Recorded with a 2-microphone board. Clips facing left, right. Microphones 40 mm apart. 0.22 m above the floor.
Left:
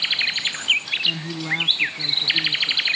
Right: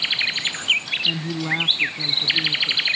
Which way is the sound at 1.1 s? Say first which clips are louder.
Right 1 dB; 10° right (ahead or behind).